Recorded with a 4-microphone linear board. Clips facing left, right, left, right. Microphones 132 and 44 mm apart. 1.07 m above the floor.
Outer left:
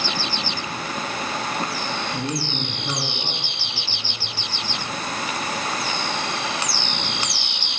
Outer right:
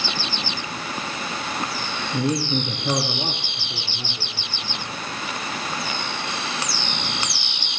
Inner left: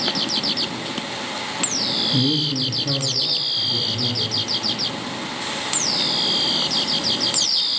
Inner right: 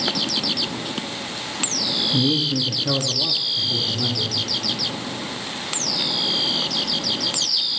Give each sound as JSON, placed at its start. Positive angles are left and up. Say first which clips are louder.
{"t": 2.1, "sound": "a man speaking", "louder": "outer right 4 dB, inner right 1 dB", "side_deg": -20, "distance_m": 1.0}